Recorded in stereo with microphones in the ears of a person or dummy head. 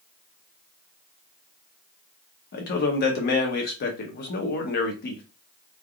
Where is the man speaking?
50° left (ahead or behind), 0.8 m.